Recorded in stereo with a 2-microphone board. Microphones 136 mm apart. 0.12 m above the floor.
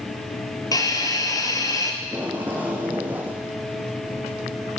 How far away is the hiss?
About 0.7 m.